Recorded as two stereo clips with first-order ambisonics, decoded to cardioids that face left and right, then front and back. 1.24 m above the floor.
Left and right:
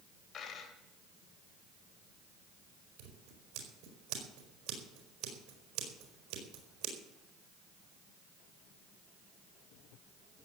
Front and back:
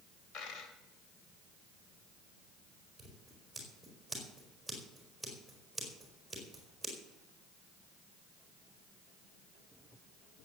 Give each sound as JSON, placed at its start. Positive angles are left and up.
{"t": 0.3, "sound": "a dropped coin", "azimuth_deg": 30, "distance_m": 3.0}
{"t": 3.0, "sound": "scissors", "azimuth_deg": -90, "distance_m": 4.5}